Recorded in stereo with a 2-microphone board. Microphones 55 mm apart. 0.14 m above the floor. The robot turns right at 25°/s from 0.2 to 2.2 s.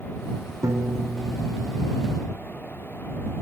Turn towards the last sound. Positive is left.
turn(degrees=-60)